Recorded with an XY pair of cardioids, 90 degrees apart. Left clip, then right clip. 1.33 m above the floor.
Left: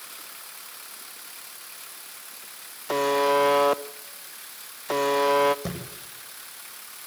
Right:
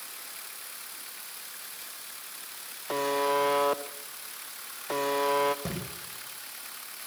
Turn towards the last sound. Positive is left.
turn(degrees=25)